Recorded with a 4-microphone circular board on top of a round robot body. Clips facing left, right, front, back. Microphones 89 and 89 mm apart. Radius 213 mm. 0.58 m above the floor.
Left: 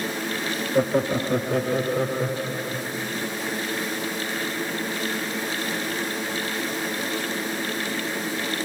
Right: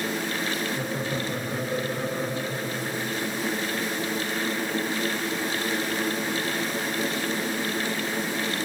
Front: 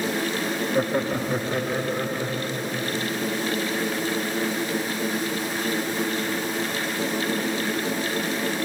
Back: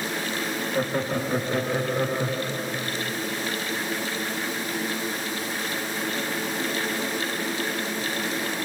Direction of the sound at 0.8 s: 75° left.